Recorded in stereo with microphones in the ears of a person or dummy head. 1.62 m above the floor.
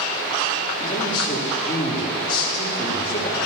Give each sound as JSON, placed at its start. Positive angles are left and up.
{"t": 0.8, "sound": "a man speaking", "side_deg": 30, "distance_m": 3.5}